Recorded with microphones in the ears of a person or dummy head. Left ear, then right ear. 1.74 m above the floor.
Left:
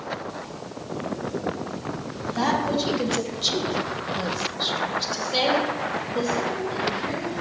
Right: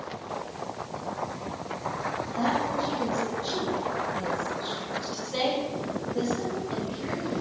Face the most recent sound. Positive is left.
turn(degrees=-10)  # may be behind; listen again after turning